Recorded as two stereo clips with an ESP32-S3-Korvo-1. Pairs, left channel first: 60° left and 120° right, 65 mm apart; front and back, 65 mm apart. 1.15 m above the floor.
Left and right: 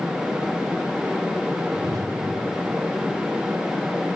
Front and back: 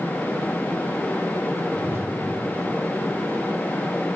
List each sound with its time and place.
1.8 s a whoosh: 130° right, 0.9 m